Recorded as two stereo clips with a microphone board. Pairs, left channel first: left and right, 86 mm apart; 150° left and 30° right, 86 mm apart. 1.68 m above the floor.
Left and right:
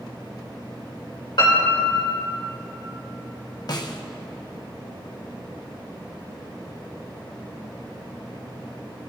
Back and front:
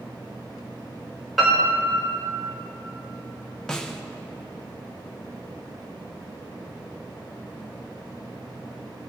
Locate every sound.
1.4 s a piano: 60° left, 3.5 m
3.7 s a snare drum: 70° left, 0.8 m